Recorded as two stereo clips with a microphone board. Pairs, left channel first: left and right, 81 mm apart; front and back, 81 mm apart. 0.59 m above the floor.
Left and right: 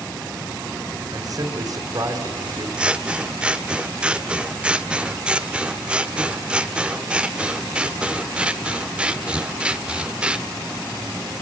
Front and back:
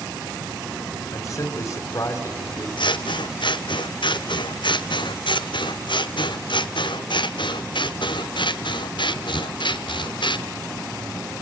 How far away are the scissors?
About 0.8 m.